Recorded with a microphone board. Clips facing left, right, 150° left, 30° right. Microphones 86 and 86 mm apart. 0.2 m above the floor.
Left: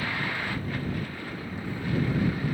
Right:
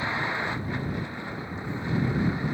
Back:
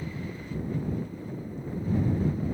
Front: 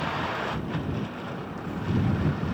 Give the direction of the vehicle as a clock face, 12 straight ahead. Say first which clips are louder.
Right 2 dB, front 9 dB; 1 o'clock.